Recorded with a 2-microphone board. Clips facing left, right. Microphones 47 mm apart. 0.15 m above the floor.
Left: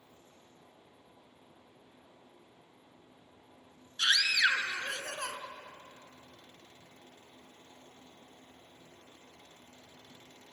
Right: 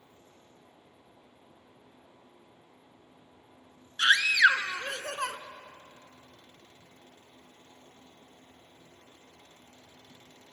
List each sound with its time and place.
4.0 s a scream: 35° right (ahead or behind), 1.5 m